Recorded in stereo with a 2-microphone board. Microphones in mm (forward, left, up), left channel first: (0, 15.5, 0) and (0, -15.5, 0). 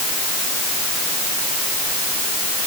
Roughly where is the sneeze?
No sneeze in this recording.